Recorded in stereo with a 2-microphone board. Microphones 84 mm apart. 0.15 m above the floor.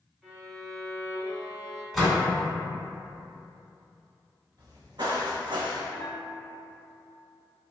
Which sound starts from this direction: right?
Footsteps, at 4.6 s.